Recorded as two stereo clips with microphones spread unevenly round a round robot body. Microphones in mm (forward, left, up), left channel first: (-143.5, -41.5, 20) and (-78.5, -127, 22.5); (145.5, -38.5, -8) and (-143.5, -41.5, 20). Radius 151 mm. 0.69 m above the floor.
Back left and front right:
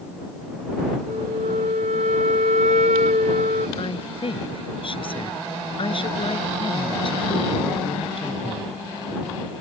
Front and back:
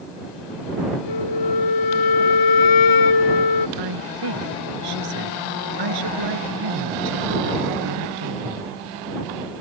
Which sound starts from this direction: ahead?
A flute, at 1.1 s.